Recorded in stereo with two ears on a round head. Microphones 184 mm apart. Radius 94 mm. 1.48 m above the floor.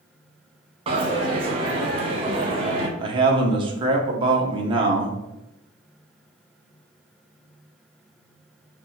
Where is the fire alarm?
I don't hear a fire alarm.